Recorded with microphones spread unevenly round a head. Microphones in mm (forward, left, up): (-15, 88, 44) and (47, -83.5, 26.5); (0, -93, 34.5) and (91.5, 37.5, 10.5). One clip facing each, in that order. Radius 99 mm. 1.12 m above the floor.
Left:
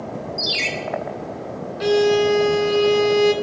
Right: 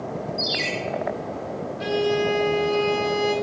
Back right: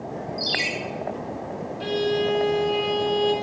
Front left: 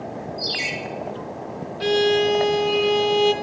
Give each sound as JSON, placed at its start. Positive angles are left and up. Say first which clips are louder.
{"t": 0.4, "sound": "a ringtone", "louder": "even, back right 1 dB", "azimuth_deg": 170, "distance_m": 1.9}
{"t": 1.8, "sound": "a violin", "louder": "left 7 dB, front left 5 dB", "azimuth_deg": 90, "distance_m": 1.0}